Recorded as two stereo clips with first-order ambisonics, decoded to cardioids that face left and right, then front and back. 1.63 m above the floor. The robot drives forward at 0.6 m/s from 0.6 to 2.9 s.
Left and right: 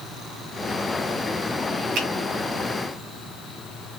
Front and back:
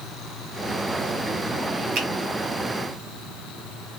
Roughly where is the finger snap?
Behind right.